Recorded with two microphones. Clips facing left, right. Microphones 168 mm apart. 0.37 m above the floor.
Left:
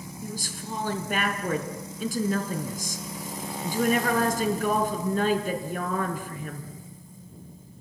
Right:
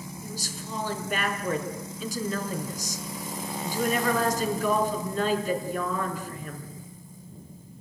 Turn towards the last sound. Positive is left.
turn(degrees=50)  # may be behind; listen again after turning